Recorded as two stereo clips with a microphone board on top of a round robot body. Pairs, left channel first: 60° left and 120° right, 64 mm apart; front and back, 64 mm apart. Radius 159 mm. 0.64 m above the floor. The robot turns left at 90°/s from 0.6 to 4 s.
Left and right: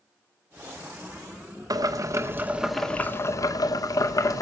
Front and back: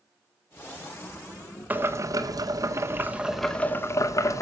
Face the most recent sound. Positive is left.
turn(degrees=35)